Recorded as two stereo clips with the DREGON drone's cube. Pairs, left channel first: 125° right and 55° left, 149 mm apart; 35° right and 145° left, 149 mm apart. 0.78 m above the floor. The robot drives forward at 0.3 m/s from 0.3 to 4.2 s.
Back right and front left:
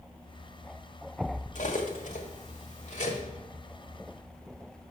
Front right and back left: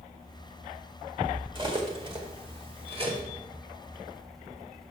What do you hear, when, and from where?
1.6 s cutlery clinking: 160° right, 1.4 m; by 3.2 s 165° right, 1.9 m